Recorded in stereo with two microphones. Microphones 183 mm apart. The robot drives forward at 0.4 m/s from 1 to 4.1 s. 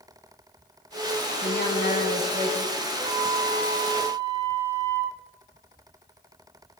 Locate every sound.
1.4 s a woman speaking: 60° left (ahead or behind), 4 m; by 2.8 s 65° left (ahead or behind), 3.5 m
2.9 s a flute: 70° left (ahead or behind), 4.5 m; by 5.1 s 75° left (ahead or behind), 4.5 m